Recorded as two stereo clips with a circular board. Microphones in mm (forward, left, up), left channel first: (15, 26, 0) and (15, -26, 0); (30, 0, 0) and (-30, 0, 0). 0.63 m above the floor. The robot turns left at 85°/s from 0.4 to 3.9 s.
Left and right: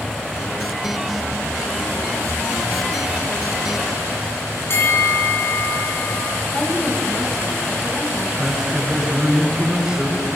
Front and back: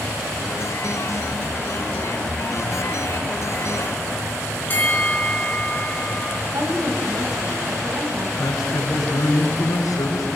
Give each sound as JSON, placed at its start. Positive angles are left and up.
{"t": 4.7, "sound": "a bell", "azimuth_deg": 55, "distance_m": 3.5}
{"t": 6.5, "sound": "a woman speaking", "azimuth_deg": 160, "distance_m": 3.5}
{"t": 8.4, "sound": "a man speaking", "azimuth_deg": -15, "distance_m": 6.0}